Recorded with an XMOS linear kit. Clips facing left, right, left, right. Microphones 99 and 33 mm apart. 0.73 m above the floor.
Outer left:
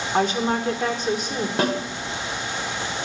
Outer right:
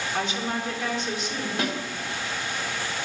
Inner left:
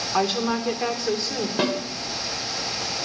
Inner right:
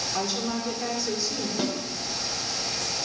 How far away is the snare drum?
About 1.2 m.